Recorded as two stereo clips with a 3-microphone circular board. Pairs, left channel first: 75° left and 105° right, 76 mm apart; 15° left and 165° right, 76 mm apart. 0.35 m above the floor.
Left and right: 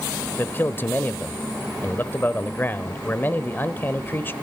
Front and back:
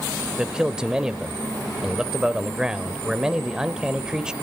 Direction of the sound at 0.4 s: 120° left.